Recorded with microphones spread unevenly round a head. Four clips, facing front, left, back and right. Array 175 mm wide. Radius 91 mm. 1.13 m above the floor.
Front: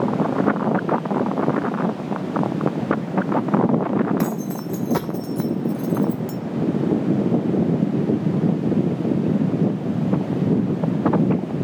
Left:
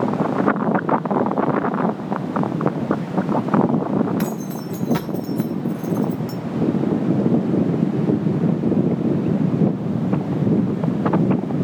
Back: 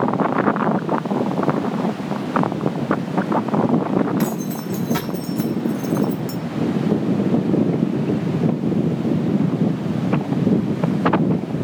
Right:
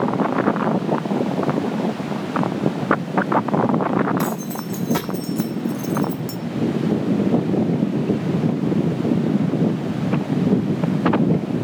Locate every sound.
4.2 s keys jangling: 15° right, 1.7 m; by 6.4 s 30° right, 0.6 m